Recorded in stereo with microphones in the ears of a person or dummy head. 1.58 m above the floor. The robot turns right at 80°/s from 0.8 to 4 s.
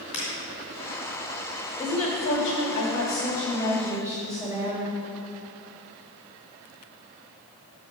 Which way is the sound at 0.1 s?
25° left (ahead or behind).